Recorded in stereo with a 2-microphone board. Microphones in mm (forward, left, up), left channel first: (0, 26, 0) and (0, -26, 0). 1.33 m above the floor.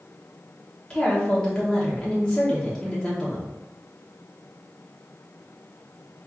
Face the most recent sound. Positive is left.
turn(degrees=10)  # may be behind; listen again after turning